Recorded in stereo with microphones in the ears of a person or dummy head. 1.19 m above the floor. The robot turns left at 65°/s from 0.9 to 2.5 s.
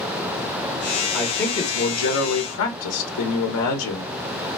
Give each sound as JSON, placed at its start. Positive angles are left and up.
{"t": 1.1, "sound": "a man speaking", "azimuth_deg": 180, "distance_m": 0.8}